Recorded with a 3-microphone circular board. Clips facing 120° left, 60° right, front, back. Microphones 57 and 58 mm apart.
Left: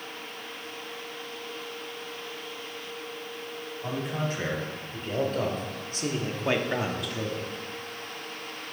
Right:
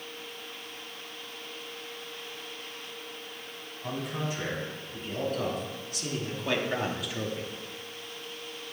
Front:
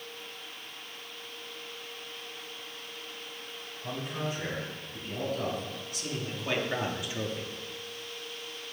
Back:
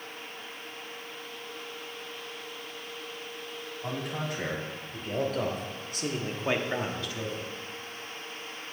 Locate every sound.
3.8 s a man speaking: 160° left, 4 m; by 7.5 s 5° right, 1.3 m